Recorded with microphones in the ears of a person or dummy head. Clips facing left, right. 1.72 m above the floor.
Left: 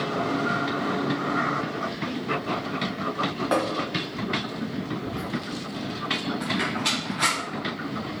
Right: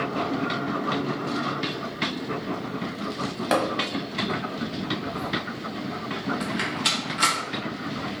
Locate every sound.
3.5 s tapping: 35° right (ahead or behind), 0.9 m
5.0 s whispering: 80° left, 1.4 m
6.4 s a rattle: 10° right (ahead or behind), 1.0 m